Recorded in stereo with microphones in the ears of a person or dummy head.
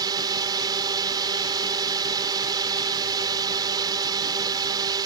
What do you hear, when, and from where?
0.0 s a drone: 20° right (ahead or behind)